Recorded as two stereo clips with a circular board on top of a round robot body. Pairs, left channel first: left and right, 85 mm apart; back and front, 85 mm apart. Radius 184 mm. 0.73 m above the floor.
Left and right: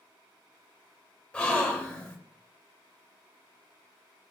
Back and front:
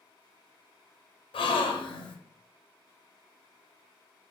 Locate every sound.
1.3 s a gasp: 170° left, 0.5 m